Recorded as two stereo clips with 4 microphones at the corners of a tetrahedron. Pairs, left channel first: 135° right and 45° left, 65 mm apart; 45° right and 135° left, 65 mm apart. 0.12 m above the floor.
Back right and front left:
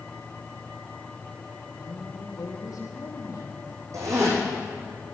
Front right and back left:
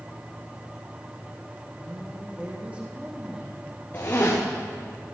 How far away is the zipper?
About 4 m.